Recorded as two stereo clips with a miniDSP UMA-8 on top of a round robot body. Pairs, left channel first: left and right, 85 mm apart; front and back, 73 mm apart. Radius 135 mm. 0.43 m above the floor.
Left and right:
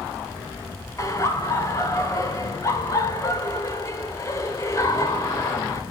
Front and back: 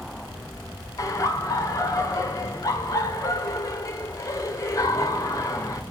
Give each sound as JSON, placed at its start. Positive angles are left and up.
{"t": 1.0, "sound": "laughter", "azimuth_deg": 40, "distance_m": 2.0}